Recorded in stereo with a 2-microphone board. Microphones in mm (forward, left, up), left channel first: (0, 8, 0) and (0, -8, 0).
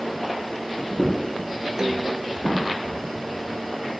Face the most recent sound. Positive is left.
turn(degrees=-45)  # may be behind; listen again after turning